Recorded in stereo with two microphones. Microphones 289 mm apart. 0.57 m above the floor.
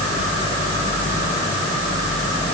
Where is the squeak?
I don't hear a squeak.